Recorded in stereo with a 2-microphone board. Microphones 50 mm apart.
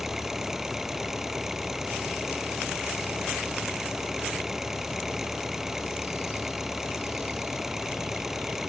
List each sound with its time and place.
0.0 s an engine running: 10° right (ahead or behind)